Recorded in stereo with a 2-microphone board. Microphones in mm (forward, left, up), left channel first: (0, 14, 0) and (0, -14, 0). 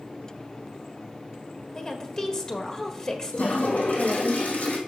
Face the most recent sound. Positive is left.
turn(degrees=75)  # may be behind; listen again after turning